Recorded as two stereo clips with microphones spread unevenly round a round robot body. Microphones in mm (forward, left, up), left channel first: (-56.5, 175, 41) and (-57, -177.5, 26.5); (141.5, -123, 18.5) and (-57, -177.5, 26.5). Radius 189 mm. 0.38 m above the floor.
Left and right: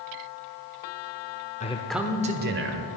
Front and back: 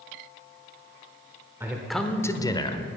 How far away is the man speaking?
About 0.8 m.